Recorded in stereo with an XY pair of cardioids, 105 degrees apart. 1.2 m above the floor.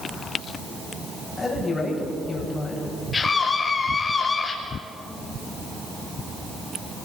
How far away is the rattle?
No rattle in this recording.